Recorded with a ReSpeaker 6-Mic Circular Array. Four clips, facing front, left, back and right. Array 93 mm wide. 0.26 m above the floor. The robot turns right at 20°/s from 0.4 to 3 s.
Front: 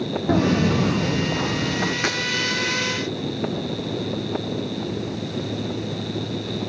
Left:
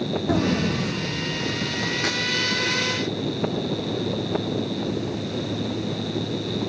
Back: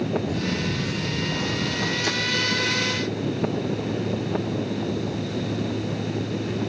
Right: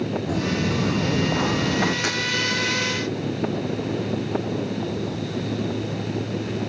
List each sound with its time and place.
0.3 s footsteps: 20° left, 0.8 m; by 1.9 s 70° right, 1.3 m
2.0 s breaking glass: 10° right, 6 m; by 2.2 s 5° right, 6 m